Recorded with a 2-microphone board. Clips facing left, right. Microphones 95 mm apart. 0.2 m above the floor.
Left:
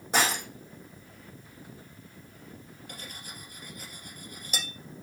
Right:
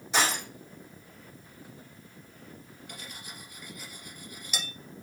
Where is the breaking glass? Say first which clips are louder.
Left 1 dB; 45° left (ahead or behind), 4.5 m.